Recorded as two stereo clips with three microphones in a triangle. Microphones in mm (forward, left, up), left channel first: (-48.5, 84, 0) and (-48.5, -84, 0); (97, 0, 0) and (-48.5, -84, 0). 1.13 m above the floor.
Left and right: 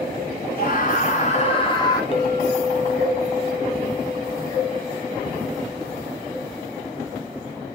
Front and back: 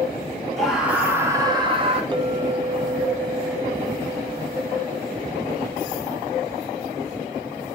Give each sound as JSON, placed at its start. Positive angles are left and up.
{"t": 0.6, "sound": "a scream", "azimuth_deg": 120, "distance_m": 3.0}
{"t": 2.1, "sound": "a clink", "azimuth_deg": 150, "distance_m": 1.0}